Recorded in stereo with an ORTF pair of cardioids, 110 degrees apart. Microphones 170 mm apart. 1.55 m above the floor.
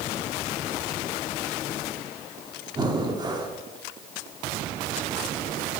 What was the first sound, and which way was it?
Breathing, 25° right.